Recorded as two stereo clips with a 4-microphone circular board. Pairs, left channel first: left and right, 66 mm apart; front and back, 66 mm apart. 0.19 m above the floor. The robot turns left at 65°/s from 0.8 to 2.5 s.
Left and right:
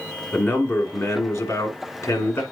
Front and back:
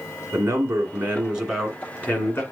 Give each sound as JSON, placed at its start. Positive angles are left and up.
{"t": 0.3, "sound": "a man speaking", "azimuth_deg": 140, "distance_m": 2.5}